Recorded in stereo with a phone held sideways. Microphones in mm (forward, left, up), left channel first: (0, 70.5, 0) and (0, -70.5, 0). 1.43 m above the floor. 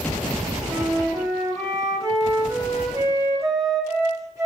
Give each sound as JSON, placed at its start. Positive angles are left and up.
{"t": 0.7, "sound": "a flute", "side_deg": -20, "distance_m": 1.6}